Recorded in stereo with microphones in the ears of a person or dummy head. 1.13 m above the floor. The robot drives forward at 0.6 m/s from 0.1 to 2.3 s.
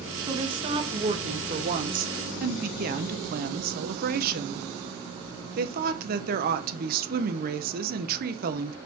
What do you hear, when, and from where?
0.3 s a woman speaking: 25° right (ahead or behind), 1.7 m; by 8.8 s 45° right (ahead or behind), 0.9 m